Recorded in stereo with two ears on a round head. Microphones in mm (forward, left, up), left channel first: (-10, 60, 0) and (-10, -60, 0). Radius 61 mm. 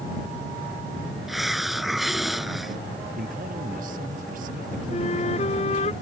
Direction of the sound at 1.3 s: Centre (ahead or behind).